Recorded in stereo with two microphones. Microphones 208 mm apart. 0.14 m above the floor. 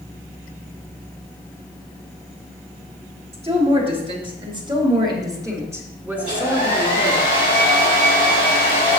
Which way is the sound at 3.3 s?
30° right (ahead or behind).